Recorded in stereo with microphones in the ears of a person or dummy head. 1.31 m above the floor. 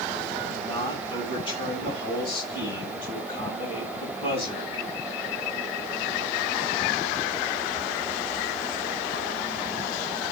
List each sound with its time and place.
0.4 s a man speaking: 20° left (ahead or behind), 8.5 m